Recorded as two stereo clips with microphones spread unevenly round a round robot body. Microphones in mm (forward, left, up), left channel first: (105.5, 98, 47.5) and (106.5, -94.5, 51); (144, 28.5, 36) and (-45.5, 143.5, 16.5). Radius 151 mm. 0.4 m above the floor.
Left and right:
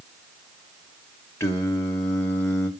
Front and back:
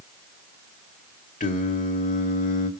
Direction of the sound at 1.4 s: 15° left.